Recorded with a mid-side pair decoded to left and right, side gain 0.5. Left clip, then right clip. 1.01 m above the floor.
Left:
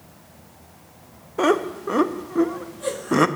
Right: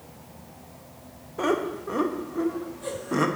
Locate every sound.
1.4 s laughter: 45° left, 0.9 m